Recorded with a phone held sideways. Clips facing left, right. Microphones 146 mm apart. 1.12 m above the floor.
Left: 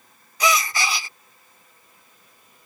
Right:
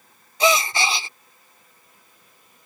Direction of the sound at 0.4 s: 25° right (ahead or behind).